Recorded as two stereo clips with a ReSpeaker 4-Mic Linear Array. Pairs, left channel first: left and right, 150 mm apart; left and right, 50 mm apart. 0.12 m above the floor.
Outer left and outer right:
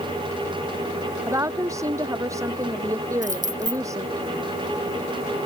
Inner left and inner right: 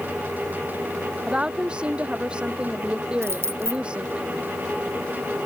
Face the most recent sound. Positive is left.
turn(degrees=-60)  # may be behind; listen again after turning